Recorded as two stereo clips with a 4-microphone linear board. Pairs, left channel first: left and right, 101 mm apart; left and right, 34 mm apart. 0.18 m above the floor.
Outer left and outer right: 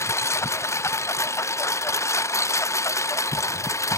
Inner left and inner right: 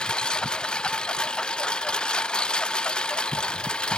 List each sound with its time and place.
0.0 s a lawn mower: 30° left (ahead or behind)